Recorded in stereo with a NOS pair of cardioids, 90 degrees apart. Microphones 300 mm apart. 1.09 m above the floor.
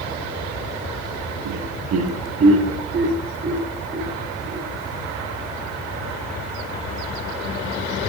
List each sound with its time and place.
1.4 s laughter: 70° right, 1.0 m; by 4.7 s 30° right, 3 m